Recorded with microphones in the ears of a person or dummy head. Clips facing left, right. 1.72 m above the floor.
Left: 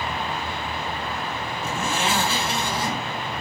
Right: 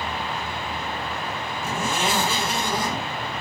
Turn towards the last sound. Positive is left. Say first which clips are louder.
# even
turn(degrees=-10)  # may be behind; listen again after turning